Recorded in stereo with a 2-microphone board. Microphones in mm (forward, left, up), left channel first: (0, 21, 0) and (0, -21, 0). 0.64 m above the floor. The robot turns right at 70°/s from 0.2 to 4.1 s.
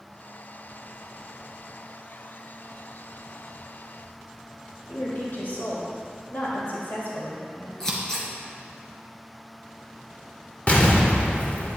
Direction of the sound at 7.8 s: 15° left (ahead or behind).